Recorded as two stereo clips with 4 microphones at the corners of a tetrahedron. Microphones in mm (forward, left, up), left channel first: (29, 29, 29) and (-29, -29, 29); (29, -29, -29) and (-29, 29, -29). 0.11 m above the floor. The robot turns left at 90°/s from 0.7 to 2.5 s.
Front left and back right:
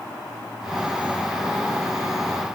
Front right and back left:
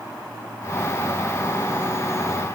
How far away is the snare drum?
I don't hear a snare drum.